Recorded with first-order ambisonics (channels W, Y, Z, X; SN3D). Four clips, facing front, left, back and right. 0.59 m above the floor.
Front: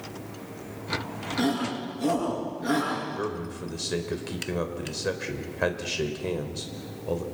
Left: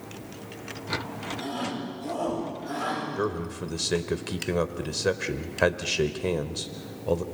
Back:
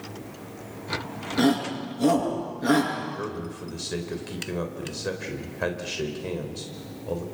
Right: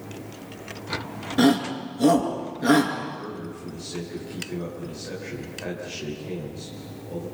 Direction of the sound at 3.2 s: 80° left.